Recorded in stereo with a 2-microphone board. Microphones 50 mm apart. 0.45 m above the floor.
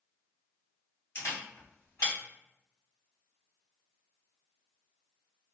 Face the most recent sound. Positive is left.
turn(degrees=65)  # may be behind; listen again after turning